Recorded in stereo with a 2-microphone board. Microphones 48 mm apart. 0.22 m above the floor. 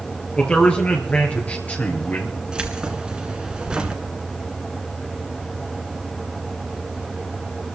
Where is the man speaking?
25° left (ahead or behind), 4 m; by 2.4 s 40° left (ahead or behind), 3.5 m.